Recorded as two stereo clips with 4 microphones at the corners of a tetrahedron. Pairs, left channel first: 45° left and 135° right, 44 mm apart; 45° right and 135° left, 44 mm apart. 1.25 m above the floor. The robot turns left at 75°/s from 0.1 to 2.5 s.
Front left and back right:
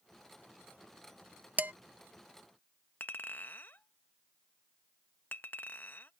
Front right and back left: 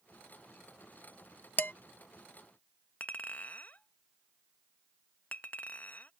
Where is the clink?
5° left.